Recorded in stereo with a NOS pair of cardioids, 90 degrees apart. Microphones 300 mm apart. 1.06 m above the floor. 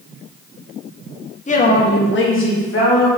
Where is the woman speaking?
25° left, 0.9 m; by 3.1 s 50° left, 1.7 m.